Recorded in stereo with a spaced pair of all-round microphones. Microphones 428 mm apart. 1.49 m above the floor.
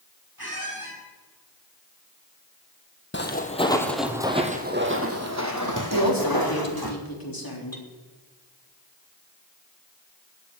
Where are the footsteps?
25° left (ahead or behind), 1.8 m; by 6.9 s 60° right (ahead or behind), 3.5 m.